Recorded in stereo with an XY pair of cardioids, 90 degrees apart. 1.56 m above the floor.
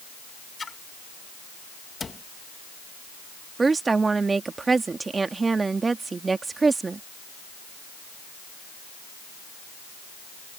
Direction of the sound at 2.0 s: 35° left.